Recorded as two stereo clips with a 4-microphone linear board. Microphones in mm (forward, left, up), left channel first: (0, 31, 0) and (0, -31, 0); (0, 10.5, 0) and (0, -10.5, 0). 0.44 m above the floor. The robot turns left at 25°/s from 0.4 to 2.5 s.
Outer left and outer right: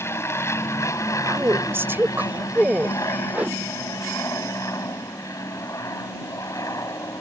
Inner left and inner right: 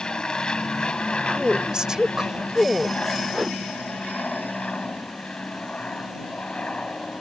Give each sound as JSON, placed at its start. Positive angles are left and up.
{"t": 0.0, "sound": "an aircraft", "azimuth_deg": 125}
{"t": 1.2, "sound": "a woman speaking", "azimuth_deg": -120}
{"t": 3.3, "sound": "a whoosh", "side_deg": -20}